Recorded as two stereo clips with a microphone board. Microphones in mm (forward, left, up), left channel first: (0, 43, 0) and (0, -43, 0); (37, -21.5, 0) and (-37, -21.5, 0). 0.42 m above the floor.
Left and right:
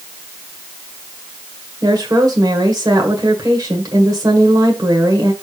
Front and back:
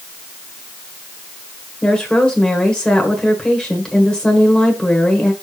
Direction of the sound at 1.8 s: 75° right.